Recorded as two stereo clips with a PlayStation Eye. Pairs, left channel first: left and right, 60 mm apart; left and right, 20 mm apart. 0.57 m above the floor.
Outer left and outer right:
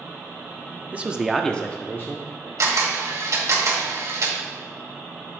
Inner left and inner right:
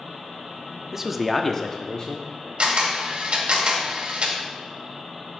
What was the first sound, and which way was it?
A man speaking, 25° right (ahead or behind).